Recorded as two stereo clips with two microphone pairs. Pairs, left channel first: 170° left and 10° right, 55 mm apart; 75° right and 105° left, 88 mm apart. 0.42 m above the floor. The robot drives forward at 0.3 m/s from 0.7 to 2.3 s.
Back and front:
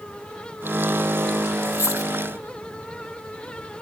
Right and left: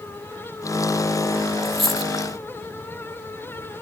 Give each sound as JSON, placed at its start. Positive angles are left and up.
{"t": 1.6, "sound": "a dropped coin", "azimuth_deg": -165, "distance_m": 1.2}